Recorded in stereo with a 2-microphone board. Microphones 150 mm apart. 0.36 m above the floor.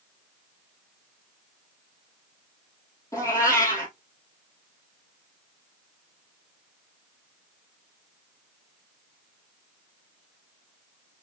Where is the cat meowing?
20° left (ahead or behind), 2.0 m.